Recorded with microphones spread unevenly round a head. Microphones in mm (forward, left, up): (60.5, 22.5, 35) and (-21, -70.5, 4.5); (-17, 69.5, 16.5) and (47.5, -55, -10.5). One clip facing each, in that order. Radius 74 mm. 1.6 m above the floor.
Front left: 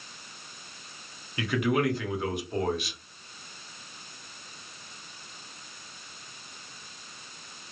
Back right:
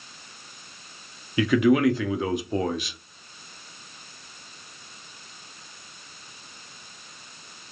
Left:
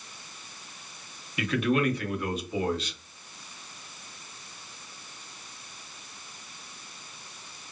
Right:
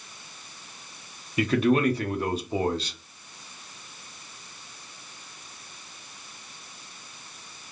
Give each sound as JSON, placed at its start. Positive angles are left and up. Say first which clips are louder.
{"t": 1.4, "sound": "a man speaking", "louder": "back right 7 dB, right 4 dB", "azimuth_deg": -125, "distance_m": 0.6}